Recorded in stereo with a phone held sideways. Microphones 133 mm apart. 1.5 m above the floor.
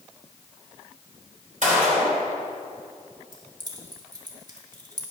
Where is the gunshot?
70° right (ahead or behind), 4 m.